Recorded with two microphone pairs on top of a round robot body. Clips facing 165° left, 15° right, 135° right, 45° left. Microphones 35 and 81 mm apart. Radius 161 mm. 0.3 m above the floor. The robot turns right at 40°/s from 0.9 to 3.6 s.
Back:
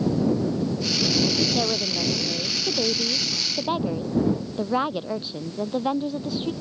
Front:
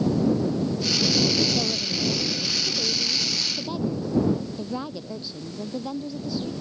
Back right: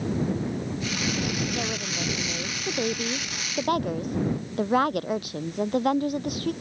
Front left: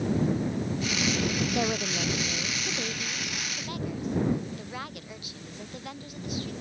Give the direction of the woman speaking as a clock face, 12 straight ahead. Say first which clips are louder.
Back 2 dB, front left 2 dB; 8 o'clock.